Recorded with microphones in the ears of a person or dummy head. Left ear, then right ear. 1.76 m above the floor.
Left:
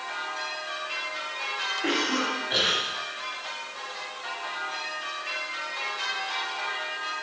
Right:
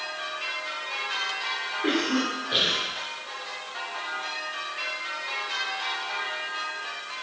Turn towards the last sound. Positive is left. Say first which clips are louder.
# right 1 dB
turn(degrees=35)  # may be behind; listen again after turning